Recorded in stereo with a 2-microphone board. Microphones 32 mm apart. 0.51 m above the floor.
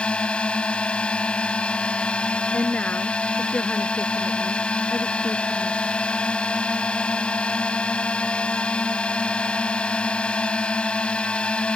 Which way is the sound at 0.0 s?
35° left (ahead or behind).